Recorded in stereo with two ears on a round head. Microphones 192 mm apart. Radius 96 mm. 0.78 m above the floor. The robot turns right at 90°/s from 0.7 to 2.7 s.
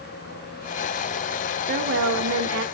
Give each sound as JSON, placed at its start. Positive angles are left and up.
{"t": 1.7, "sound": "a woman speaking", "azimuth_deg": -135, "distance_m": 2.0}